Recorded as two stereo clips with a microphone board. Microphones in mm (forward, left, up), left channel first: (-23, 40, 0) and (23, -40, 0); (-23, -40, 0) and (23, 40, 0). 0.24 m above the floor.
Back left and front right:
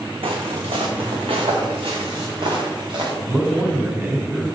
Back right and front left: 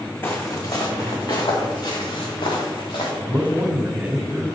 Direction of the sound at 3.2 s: 5° right.